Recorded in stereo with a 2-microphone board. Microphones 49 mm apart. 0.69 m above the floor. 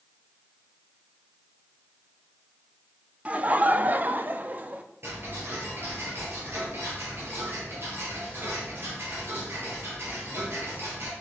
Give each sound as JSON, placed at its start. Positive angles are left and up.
{"t": 3.2, "sound": "laughter", "side_deg": -30, "distance_m": 0.7}
{"t": 5.0, "sound": "ticking", "side_deg": -50, "distance_m": 5.0}